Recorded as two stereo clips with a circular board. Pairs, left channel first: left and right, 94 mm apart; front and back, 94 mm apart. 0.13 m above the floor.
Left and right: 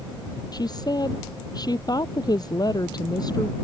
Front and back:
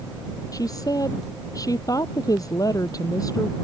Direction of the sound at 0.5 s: 50° left.